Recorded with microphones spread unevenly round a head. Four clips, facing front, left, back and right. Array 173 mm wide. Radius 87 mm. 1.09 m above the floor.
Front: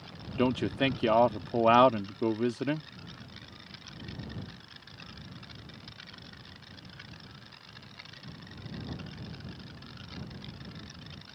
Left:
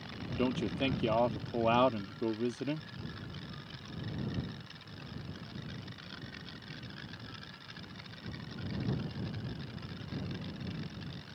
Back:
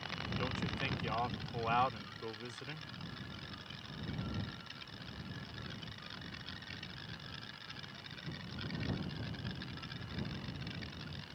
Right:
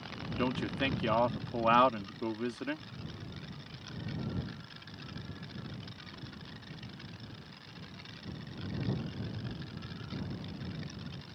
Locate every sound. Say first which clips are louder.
0.4 s a man speaking: left 1 dB, front 15 dB; 10° left